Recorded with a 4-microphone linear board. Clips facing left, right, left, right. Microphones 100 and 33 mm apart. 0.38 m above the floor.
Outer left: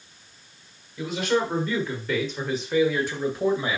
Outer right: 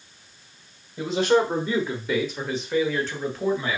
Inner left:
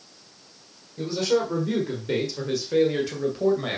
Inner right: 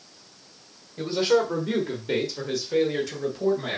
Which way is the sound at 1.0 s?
35° right (ahead or behind).